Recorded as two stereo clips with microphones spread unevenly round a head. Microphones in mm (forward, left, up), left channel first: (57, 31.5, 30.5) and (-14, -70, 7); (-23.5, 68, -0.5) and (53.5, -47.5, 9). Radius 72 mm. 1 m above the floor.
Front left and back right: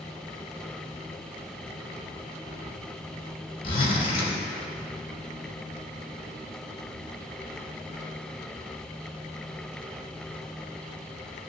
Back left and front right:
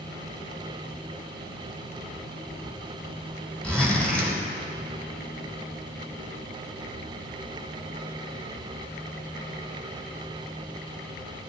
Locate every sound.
3.6 s a zipper: 40° left, 3.5 m